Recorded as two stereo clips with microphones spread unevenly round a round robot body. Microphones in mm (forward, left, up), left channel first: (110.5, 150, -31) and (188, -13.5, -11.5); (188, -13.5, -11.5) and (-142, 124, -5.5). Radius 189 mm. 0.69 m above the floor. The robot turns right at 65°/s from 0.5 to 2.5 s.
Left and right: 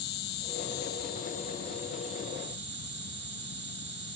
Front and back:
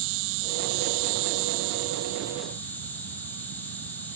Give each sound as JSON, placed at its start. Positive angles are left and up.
{"t": 0.0, "sound": "an insect", "azimuth_deg": 125, "distance_m": 0.7}